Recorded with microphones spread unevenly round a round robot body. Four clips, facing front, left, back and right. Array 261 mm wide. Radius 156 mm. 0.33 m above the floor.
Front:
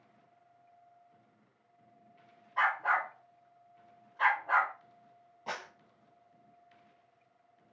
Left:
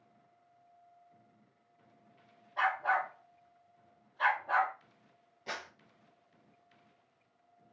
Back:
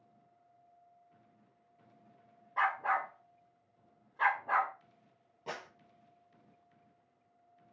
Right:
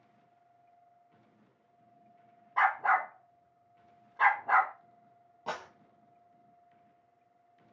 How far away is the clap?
About 1.2 m.